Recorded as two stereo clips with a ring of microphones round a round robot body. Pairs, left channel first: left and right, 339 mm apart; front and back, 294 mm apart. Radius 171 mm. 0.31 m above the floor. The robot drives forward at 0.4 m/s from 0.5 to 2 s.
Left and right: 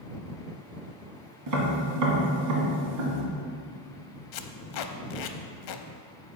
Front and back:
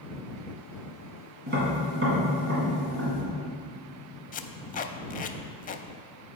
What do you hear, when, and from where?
1.5 s tapping: 120° right, 2 m; by 3.2 s 125° right, 2 m
4.3 s tape being pulled: 65° left, 0.6 m